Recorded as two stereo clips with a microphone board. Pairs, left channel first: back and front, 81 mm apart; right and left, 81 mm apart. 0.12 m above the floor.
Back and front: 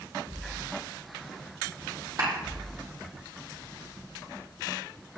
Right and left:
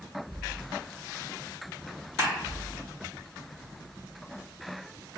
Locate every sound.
2.2 s a clap: 40° left, 3.5 m